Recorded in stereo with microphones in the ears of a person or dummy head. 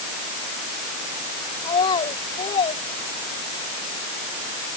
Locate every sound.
1.6 s a child speaking: 25° left (ahead or behind)